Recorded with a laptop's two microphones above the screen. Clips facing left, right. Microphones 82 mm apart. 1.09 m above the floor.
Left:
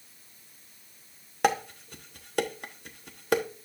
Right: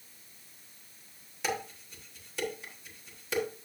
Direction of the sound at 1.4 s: 60° left (ahead or behind).